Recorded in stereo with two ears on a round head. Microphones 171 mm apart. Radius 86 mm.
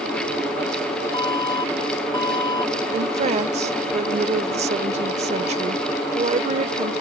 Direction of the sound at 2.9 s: 35° right (ahead or behind).